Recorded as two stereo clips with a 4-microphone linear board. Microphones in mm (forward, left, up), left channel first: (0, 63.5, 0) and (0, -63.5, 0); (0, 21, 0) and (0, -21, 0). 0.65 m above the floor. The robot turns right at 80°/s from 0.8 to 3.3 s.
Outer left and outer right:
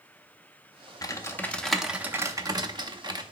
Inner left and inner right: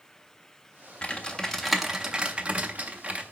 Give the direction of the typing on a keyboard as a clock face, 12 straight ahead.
8 o'clock.